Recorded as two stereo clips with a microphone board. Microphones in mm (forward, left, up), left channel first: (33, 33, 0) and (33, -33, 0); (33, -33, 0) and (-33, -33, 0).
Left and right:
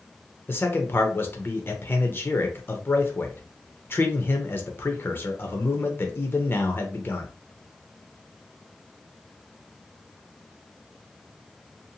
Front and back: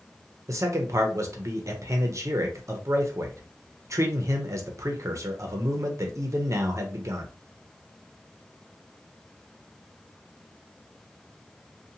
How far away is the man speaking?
About 0.5 m.